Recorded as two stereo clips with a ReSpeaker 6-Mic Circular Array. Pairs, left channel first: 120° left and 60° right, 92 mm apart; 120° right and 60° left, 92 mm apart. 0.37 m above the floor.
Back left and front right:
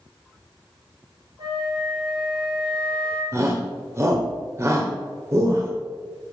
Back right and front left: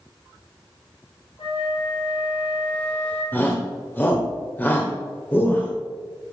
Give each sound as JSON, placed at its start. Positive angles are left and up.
{"t": 1.4, "sound": "a flute", "azimuth_deg": -105, "distance_m": 2.5}
{"t": 3.3, "sound": "a shout", "azimuth_deg": -70, "distance_m": 1.1}